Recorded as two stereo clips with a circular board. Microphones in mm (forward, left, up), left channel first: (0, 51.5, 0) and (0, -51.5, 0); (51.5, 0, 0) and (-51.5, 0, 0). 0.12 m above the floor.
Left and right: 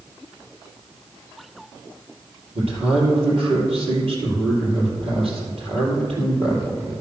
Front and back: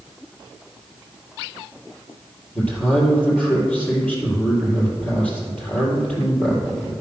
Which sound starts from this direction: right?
A man speaking, at 2.5 s.